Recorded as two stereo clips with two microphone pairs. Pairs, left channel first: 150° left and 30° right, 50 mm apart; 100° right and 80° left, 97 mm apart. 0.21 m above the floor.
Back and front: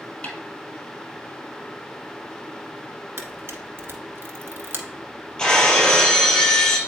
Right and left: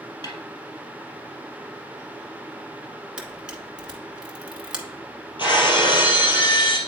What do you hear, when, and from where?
0.2 s a snare drum: 140° right, 1.4 m
3.2 s a camera shutter: straight ahead, 1.0 m
5.4 s breaking glass: 130° right, 3 m